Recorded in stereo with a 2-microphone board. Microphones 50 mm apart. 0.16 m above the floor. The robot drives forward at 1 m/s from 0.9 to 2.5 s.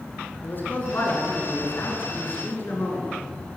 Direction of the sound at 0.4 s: 40° left (ahead or behind).